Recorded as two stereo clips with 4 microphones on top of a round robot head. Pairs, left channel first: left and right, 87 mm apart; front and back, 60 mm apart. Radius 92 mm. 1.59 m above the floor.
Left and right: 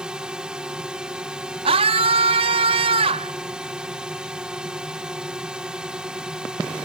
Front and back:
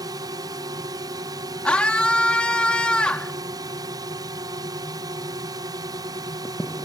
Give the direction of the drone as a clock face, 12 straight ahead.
6 o'clock.